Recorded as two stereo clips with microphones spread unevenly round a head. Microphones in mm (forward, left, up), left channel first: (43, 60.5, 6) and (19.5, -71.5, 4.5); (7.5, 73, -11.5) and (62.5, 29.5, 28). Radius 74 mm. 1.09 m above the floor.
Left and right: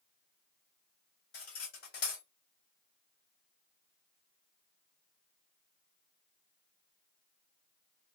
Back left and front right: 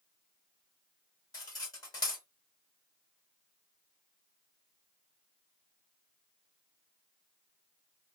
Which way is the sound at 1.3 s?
105° left.